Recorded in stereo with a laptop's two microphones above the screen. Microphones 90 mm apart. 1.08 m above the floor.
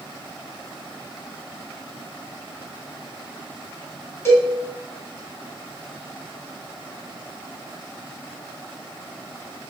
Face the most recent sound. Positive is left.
turn(degrees=25)  # may be behind; listen again after turning